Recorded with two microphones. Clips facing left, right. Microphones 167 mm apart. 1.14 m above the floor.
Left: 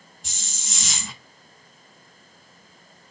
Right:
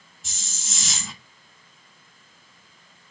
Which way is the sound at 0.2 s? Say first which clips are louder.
Even; centre (ahead or behind).